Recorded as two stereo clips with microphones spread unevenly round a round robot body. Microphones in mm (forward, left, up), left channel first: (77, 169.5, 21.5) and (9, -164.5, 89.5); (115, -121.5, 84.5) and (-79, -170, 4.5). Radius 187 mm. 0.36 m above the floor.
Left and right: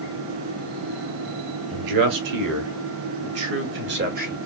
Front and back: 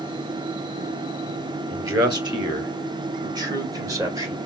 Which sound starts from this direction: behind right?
A man speaking, at 1.7 s.